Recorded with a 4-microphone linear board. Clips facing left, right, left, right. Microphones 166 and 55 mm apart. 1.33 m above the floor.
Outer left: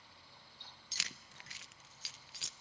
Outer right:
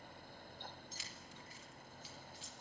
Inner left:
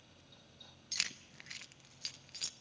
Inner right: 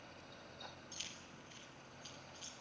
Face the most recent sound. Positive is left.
turn(degrees=80)